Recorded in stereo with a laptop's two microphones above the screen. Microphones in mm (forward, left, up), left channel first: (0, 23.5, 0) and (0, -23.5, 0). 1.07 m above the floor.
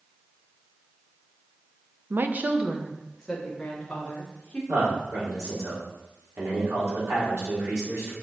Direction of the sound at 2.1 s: 60° right (ahead or behind).